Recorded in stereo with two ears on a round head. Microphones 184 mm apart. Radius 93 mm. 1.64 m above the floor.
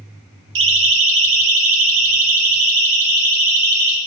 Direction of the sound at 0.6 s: 70° right (ahead or behind).